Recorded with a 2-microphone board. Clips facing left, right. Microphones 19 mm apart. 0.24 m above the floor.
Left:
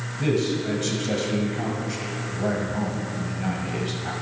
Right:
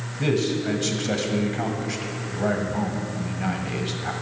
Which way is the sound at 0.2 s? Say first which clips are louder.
Right 1 dB; 20° right (ahead or behind).